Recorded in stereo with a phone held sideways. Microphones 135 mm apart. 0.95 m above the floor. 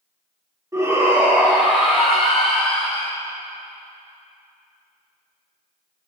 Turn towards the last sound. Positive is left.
turn(degrees=10)  # may be behind; listen again after turning